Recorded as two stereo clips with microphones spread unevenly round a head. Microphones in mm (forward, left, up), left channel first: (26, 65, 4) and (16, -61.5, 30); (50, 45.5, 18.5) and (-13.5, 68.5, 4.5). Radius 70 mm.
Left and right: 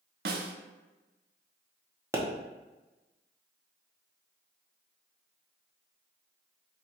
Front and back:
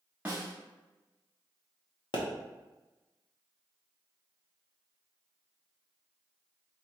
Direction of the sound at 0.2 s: 120° right.